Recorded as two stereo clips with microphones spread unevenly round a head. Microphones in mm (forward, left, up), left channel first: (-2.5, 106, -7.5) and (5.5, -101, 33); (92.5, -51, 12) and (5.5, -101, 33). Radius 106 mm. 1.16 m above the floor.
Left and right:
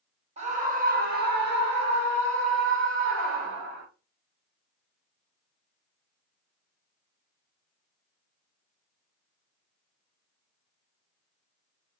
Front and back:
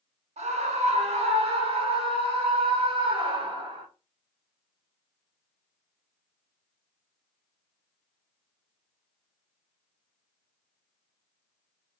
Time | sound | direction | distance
0.4 | a scream | 150° right | 2 m